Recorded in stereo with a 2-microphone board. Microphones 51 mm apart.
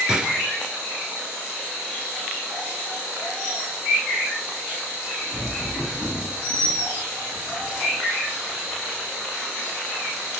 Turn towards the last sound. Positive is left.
turn(degrees=-15)  # may be behind; listen again after turning